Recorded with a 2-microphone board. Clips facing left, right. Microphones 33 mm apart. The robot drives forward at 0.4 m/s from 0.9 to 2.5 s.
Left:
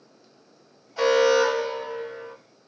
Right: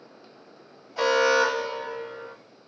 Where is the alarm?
5° right (ahead or behind), 0.7 m.